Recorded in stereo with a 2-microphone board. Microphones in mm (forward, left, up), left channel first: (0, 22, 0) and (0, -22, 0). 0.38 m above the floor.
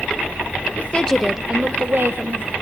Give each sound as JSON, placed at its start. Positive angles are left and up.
{"t": 0.8, "sound": "a woman speaking", "side_deg": 40, "distance_m": 1.1}